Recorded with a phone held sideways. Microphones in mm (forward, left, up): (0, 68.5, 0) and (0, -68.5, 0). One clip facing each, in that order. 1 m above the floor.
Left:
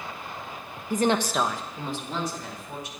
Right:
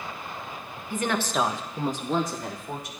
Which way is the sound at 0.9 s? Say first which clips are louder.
Left 4 dB; 45° left (ahead or behind).